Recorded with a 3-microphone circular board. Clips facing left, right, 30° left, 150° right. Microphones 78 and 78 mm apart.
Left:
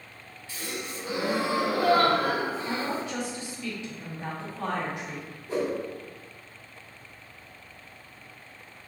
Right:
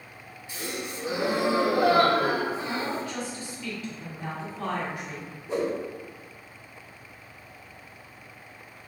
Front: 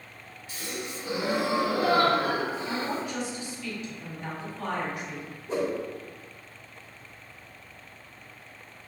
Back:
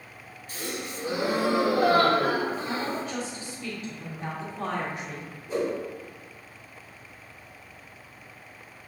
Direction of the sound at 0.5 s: 155° right.